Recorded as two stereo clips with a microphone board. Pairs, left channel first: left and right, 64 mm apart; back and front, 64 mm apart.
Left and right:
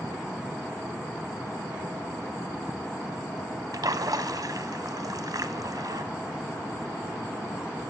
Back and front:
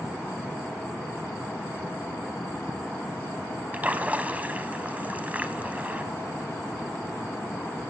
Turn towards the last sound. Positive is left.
turn(degrees=-65)